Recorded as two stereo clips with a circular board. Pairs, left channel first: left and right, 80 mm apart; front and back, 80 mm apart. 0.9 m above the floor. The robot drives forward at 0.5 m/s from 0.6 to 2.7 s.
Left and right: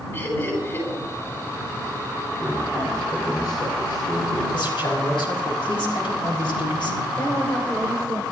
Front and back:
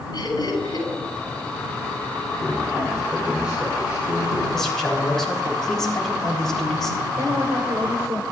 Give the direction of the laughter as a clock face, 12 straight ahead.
11 o'clock.